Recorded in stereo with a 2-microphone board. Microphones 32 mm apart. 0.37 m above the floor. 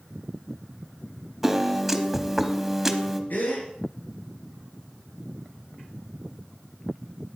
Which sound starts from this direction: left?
A gasp, at 3.3 s.